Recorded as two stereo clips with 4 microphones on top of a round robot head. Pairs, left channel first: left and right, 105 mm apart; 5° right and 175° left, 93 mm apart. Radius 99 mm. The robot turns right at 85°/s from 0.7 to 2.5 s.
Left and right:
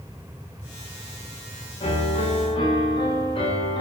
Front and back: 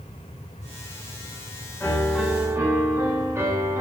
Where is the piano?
55° left, 4.5 m; by 3.8 s 115° left, 4.5 m.